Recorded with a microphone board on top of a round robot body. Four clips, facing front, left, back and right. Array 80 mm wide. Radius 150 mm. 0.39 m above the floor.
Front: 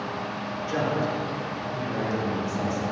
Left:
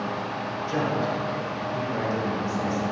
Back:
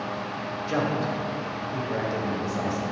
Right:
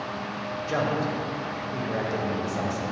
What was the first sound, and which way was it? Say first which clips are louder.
A man speaking: even, even; 125° right.